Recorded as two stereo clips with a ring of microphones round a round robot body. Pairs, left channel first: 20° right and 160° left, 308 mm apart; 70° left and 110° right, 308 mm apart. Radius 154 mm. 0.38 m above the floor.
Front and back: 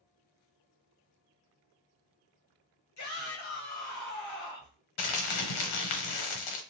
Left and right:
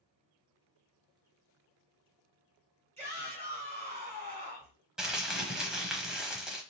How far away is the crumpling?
About 1.0 m.